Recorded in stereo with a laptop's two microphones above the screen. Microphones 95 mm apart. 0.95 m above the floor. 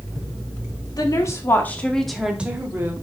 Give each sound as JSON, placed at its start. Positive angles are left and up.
{"t": 1.0, "sound": "a woman speaking", "side_deg": 40, "distance_m": 2.0}